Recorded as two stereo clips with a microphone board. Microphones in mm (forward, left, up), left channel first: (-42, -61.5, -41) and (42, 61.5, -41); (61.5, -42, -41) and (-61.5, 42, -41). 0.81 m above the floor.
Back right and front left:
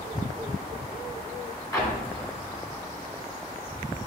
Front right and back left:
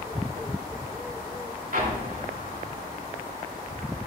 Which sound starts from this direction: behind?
An explosion, at 1.7 s.